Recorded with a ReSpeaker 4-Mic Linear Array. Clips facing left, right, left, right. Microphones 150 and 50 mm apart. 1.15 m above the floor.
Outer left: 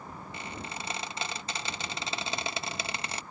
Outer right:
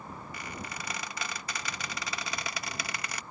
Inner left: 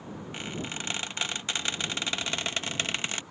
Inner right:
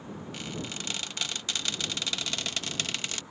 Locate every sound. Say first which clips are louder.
0.3 s a squeak: outer left 3 dB, inner left 3 dB; 25° left (ahead or behind)